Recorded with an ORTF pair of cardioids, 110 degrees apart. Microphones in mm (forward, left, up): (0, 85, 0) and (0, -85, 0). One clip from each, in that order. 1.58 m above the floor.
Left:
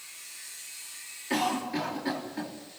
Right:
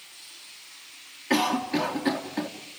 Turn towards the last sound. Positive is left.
turn(degrees=-45)